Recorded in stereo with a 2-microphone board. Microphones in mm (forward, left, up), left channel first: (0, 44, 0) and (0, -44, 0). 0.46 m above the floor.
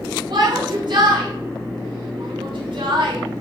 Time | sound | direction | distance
0.3 | a shout | 60° right (ahead or behind) | 4.5 m